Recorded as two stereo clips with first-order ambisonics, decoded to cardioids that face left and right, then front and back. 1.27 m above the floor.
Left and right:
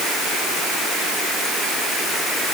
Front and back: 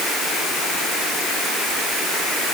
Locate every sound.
Only background noise.